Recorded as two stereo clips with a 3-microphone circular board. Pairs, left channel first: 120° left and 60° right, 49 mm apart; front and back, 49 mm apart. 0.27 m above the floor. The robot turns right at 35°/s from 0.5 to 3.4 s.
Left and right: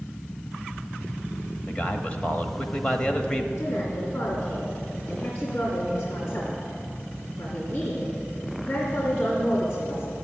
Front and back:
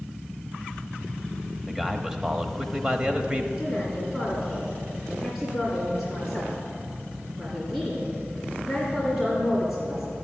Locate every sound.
1.7 s a man speaking: 105° left, 0.9 m; by 3.5 s 165° left, 0.9 m
3.6 s a woman speaking: 105° left, 3 m